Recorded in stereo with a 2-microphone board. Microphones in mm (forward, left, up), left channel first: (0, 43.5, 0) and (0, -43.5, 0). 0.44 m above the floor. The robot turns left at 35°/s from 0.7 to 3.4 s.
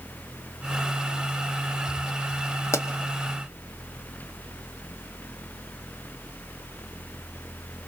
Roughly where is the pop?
Left.